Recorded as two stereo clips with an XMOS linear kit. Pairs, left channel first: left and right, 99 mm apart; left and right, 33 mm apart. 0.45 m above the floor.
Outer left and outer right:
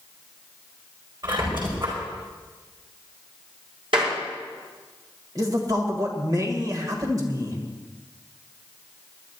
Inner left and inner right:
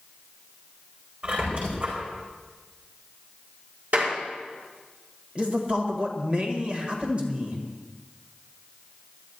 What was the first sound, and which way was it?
A squeak, 55° right (ahead or behind).